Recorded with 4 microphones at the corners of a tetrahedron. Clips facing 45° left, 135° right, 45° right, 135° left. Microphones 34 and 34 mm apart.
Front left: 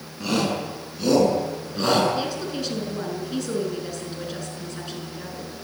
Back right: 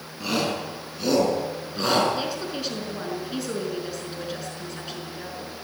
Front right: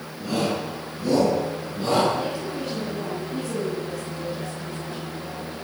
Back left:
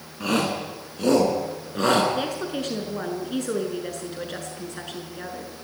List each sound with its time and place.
0.2 s a shout: 145° left, 7.5 m; by 2.0 s 140° left, 8.5 m
2.1 s a woman speaking: 145° left, 6 m